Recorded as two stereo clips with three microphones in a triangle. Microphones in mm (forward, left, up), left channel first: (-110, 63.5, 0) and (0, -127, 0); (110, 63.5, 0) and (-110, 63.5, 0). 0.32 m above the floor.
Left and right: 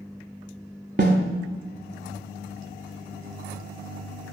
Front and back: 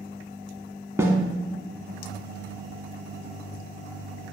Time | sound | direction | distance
1.0 | a snare drum | 105° right | 1.0 m